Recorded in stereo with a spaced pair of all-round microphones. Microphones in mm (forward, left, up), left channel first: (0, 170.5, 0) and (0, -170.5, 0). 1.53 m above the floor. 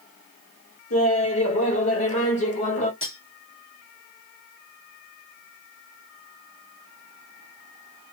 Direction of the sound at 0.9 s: 45° left (ahead or behind).